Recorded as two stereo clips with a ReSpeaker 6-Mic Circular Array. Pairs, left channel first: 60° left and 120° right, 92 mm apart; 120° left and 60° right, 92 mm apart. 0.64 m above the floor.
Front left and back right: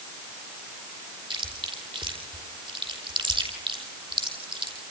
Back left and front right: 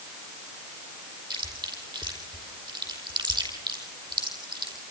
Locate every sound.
1.3 s chewing: 100° right, 5 m